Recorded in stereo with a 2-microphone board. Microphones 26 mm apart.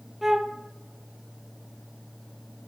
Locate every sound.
0.2 s a flute: 10° right (ahead or behind), 0.6 m